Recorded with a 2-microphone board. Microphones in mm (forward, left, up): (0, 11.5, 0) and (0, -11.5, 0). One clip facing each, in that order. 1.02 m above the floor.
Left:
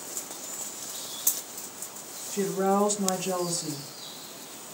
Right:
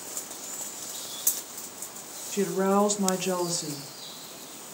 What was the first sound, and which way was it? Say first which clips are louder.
A woman speaking: right 1 dB; 30° right (ahead or behind).